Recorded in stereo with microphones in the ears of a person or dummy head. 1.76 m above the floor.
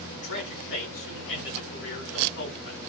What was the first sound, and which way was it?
A man speaking, 70° left (ahead or behind).